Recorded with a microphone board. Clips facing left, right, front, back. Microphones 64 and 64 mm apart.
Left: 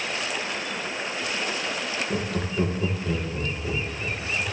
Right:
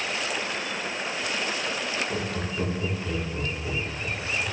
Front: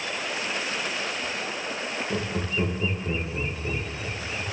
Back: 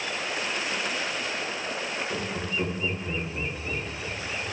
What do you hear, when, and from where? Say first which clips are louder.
2.1 s laughter: left 2 dB, front 2 dB; 45° left, 3 m